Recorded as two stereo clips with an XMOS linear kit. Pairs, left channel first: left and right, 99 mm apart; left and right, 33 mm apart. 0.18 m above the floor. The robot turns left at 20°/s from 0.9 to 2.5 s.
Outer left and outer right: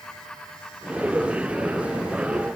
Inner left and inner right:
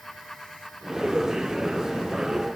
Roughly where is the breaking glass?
No breaking glass in this recording.